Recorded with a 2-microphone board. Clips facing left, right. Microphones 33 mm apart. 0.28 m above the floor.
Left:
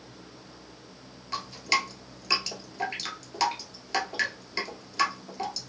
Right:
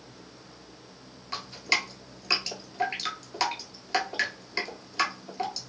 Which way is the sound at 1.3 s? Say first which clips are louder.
Left 1 dB; 10° right (ahead or behind).